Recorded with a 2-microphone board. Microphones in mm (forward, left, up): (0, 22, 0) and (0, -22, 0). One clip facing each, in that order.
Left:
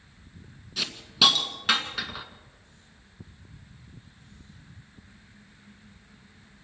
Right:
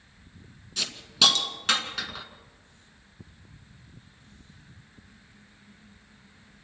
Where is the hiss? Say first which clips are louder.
Left 1 dB; 5° left (ahead or behind), 1.8 m.